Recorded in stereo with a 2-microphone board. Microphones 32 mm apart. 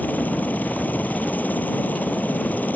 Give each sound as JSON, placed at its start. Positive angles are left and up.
{"t": 0.0, "sound": "a helicopter", "side_deg": 70}